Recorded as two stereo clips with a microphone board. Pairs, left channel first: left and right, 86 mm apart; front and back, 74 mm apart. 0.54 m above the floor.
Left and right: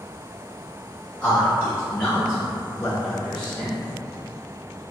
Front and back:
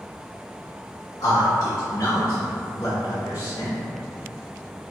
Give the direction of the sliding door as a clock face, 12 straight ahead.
I don't hear a sliding door.